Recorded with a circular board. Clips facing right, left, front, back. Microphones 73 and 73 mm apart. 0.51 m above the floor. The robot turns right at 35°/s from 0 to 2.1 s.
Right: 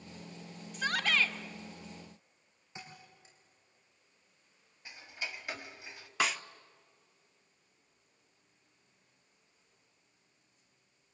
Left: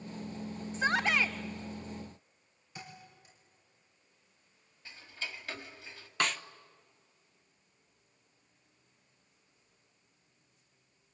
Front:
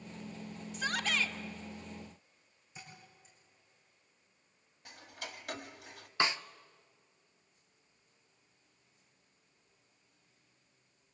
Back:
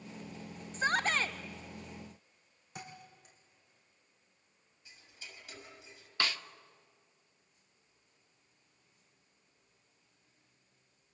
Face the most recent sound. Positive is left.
turn(degrees=-15)